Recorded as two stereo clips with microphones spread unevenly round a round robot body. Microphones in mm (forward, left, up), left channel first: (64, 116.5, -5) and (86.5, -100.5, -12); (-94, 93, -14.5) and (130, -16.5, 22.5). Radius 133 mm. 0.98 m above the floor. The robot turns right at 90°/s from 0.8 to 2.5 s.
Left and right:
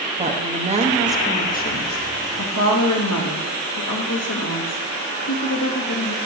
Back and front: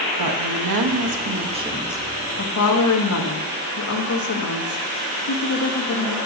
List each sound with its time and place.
0.2 s a woman speaking: 25° right, 1.1 m; by 6.2 s 130° left, 1.1 m